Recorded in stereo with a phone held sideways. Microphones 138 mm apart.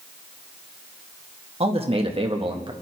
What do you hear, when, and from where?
1.6 s a man speaking: 45° right (ahead or behind), 1.6 m; by 2.7 s 35° right (ahead or behind), 1.2 m